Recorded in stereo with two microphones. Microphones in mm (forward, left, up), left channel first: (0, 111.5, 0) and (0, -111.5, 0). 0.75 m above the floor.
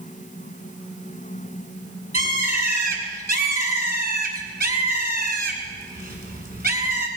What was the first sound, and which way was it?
A bird, 45° right (ahead or behind).